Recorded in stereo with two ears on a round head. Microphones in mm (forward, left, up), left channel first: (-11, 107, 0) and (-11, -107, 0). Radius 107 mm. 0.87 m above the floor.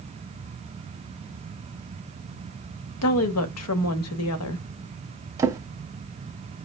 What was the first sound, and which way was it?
A woman speaking, 70° left (ahead or behind).